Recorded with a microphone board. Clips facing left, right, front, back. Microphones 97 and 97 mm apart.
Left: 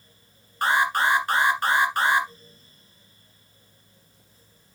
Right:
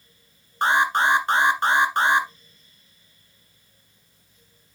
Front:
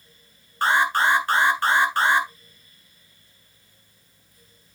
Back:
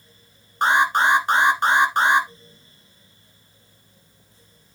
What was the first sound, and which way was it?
An alarm, 130° right.